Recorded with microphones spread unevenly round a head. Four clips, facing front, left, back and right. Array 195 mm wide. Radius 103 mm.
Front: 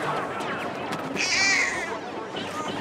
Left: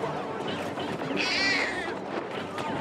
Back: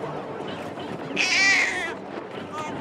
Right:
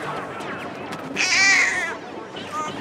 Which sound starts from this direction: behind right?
A baby crying, at 1.2 s.